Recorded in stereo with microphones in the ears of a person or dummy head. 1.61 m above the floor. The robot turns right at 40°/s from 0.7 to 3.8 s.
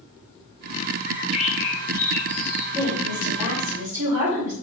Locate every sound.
1.1 s a bird: 125° left, 0.7 m; by 2.6 s 175° right, 0.7 m
2.8 s a woman speaking: 160° right, 1.6 m; by 4.5 s 120° right, 1.6 m